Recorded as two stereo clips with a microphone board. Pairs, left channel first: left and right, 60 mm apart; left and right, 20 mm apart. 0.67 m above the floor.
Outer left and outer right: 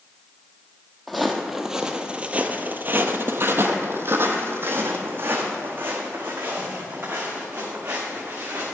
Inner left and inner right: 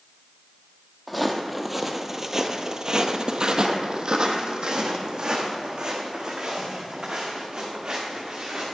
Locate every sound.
1.1 s footsteps: centre (ahead or behind), 1.1 m; by 8.6 s 40° right (ahead or behind), 3.5 m